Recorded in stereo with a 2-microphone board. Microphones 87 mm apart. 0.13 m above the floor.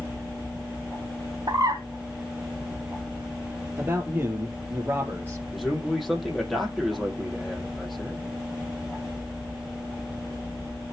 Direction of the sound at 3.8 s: 25° right (ahead or behind).